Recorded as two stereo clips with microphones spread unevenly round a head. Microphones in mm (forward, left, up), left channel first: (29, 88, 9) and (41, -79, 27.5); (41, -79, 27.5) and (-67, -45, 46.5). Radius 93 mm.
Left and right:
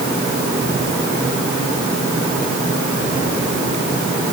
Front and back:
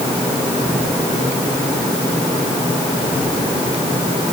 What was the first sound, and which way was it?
Only background noise.